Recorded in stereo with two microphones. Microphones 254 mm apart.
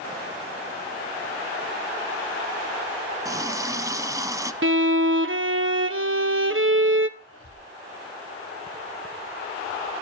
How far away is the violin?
About 0.8 m.